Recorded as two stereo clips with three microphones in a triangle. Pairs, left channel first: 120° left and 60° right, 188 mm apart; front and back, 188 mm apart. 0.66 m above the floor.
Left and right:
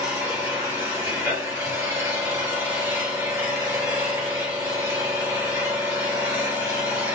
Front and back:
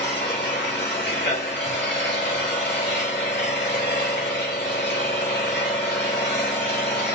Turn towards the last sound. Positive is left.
turn(degrees=15)